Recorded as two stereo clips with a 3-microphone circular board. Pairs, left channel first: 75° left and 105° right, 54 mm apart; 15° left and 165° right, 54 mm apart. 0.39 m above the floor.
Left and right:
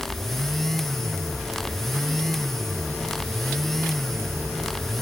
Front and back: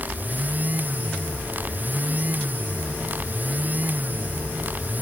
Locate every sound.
Only background noise.